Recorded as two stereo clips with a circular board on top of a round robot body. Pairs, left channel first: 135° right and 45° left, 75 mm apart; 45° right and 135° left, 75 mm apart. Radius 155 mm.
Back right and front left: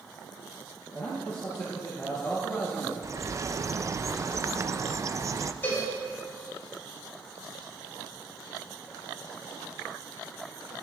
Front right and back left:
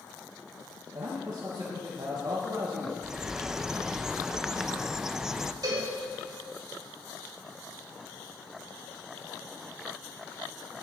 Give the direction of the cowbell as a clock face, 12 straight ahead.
6 o'clock.